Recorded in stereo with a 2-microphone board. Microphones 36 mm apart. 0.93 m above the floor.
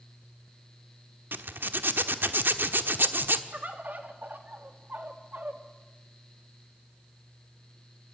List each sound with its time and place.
1.3 s a zipper: 65° right (ahead or behind), 1.2 m
3.5 s a bird: 50° right (ahead or behind), 2 m